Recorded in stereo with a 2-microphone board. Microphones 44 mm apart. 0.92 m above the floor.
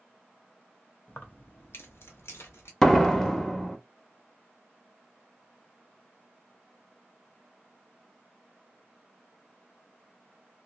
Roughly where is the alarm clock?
No alarm clock in this recording.